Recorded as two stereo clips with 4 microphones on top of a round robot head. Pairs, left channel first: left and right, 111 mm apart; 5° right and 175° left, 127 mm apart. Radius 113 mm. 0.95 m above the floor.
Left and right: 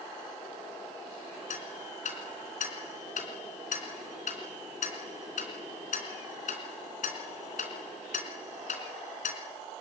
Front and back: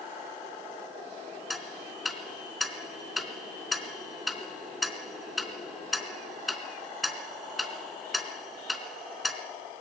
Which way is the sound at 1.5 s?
85° left.